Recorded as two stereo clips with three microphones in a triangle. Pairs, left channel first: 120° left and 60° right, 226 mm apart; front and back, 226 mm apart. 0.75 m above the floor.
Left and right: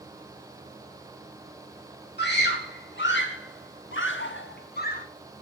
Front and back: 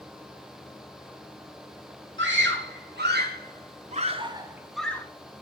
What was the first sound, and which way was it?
A scream, 155° left.